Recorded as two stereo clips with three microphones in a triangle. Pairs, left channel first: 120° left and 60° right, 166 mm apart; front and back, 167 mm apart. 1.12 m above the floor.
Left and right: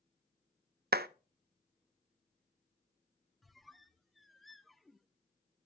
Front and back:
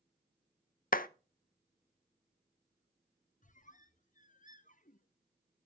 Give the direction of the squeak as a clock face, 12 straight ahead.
11 o'clock.